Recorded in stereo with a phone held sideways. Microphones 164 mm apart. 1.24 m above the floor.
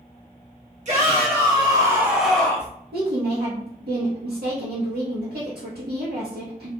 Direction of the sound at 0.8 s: 45° right (ahead or behind).